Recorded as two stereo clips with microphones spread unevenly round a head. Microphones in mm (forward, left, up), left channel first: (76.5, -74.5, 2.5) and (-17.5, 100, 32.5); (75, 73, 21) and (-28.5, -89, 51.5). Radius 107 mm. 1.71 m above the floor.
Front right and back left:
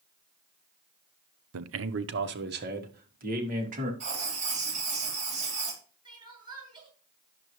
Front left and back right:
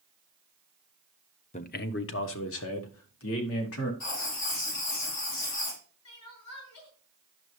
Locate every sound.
1.5 s a man speaking: 120° left, 0.7 m; by 3.9 s 70° left, 2.5 m
4.0 s writing: 65° left, 3.5 m
6.0 s crying: 55° left, 6.5 m